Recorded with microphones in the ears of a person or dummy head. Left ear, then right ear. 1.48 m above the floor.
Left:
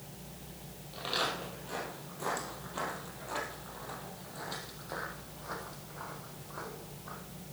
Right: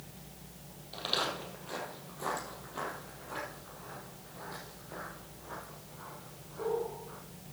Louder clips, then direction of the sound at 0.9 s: Even; 30° right (ahead or behind).